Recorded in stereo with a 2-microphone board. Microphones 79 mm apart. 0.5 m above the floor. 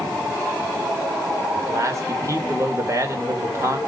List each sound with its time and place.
1.6 s a man speaking: 40° right (ahead or behind), 2 m